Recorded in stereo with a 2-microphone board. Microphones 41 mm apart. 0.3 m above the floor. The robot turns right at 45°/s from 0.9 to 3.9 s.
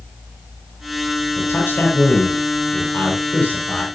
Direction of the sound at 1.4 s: 50° left.